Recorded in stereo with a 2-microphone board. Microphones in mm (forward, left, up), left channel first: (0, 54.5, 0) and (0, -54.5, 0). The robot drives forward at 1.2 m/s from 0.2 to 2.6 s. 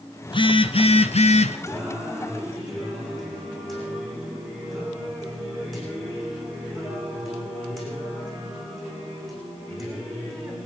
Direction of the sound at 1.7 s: Centre (ahead or behind).